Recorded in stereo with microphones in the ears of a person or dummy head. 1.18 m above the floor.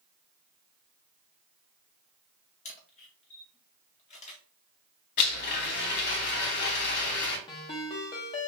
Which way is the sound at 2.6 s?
30° left (ahead or behind).